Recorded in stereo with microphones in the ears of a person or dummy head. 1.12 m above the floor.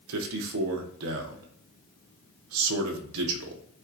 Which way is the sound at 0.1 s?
65° right (ahead or behind).